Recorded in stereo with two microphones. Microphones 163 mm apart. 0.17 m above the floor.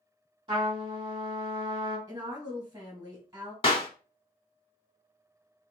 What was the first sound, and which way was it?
A trumpet, 35° right (ahead or behind).